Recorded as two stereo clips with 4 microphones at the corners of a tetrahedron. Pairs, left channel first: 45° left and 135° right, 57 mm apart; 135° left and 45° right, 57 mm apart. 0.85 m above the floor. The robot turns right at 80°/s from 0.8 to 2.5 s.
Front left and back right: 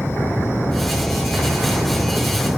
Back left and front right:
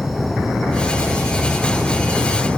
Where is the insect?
40° left, 1.1 m; by 2.6 s 175° left, 1.1 m.